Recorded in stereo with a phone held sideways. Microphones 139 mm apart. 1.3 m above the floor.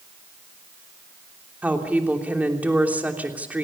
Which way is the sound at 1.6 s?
10° right (ahead or behind).